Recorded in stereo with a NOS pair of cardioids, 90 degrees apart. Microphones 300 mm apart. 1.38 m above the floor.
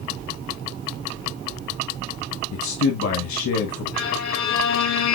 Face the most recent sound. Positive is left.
turn(degrees=70)